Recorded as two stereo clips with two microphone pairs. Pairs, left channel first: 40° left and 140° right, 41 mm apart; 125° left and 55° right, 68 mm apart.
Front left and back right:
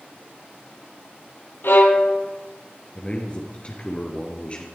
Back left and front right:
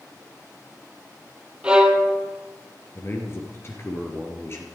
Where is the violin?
25° left, 2.5 m.